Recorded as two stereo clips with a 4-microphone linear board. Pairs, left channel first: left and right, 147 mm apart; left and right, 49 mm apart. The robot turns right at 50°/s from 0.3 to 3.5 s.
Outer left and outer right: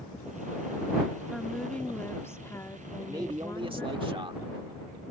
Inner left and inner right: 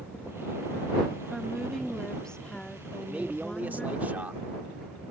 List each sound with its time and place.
1.3 s a woman speaking: centre (ahead or behind); by 4.0 s 20° left (ahead or behind)
3.0 s a man speaking: 20° right (ahead or behind); by 4.4 s 35° right (ahead or behind)